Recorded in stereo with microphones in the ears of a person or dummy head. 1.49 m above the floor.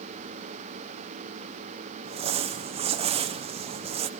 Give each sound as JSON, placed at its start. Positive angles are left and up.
{"t": 2.0, "sound": "crumpling", "side_deg": -35, "distance_m": 0.9}